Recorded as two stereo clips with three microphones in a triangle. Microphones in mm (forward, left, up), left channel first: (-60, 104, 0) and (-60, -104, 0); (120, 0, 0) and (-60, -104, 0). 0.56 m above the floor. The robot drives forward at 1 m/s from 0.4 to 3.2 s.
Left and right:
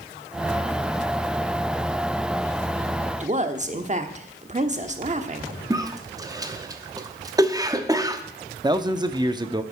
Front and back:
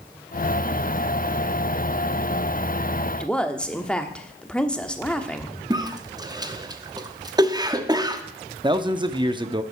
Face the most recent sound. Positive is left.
turn(degrees=-125)